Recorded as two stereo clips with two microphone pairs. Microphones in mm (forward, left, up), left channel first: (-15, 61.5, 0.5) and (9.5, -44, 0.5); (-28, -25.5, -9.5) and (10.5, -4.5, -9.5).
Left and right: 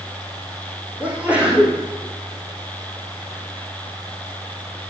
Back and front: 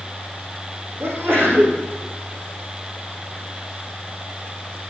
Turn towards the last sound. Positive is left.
turn(degrees=0)